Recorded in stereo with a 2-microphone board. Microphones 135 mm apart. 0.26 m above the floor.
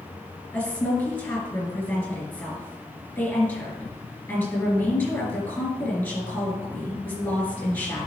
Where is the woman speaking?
15° left (ahead or behind), 3.5 m.